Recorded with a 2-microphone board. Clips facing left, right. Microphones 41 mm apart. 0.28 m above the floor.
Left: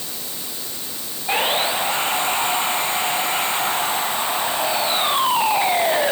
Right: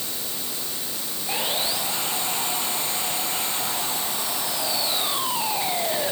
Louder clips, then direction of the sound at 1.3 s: Left 8 dB; 40° left (ahead or behind).